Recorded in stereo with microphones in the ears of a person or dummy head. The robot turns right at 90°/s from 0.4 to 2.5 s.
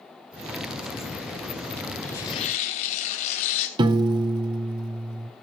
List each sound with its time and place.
2.0 s tearing paper: 10° left, 3 m; by 3.7 s 50° left, 3 m
3.8 s a piano: 20° right (ahead or behind), 0.6 m